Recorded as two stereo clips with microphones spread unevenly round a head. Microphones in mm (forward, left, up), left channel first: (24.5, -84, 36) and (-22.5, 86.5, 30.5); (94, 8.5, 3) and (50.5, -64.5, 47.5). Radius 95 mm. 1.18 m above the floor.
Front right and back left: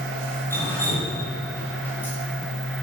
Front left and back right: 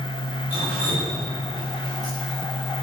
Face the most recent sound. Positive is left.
turn(degrees=-155)